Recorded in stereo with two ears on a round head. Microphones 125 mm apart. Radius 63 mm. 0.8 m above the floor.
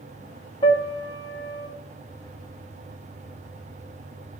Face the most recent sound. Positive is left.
turn(degrees=35)  # may be behind; listen again after turning